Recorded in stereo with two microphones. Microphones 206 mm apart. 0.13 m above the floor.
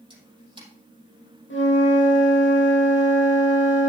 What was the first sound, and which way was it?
A camera shutter, 25° right (ahead or behind).